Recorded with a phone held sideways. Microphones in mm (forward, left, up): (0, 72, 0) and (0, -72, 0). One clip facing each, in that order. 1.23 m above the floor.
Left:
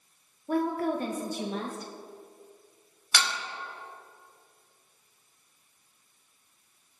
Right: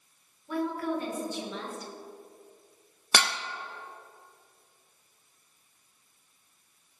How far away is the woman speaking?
About 1.3 m.